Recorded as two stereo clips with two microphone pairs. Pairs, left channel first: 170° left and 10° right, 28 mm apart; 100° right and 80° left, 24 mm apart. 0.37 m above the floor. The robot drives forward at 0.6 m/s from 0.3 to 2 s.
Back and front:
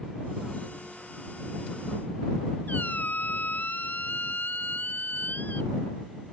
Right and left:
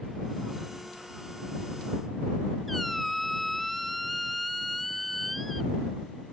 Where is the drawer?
No drawer in this recording.